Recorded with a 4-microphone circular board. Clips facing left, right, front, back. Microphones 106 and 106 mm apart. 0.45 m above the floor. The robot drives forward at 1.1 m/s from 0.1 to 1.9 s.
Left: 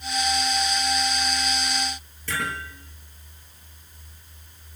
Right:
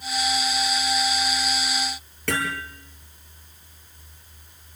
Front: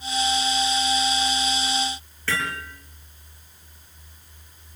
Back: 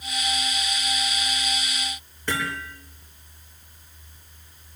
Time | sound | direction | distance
2.3 | hammering | 105° right | 8 m